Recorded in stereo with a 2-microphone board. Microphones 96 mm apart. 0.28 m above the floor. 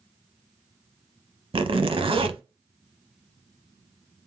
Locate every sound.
1.5 s a zipper: 60° right (ahead or behind), 0.7 m